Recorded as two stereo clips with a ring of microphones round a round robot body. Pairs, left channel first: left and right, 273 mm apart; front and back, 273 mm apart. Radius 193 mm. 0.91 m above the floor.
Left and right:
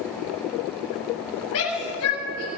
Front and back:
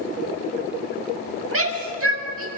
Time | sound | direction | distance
1.5 | a shout | 145° left | 7 m